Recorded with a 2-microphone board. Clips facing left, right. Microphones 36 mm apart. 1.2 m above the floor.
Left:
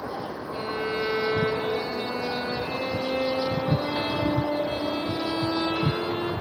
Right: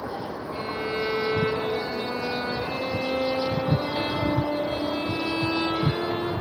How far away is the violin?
About 6.5 m.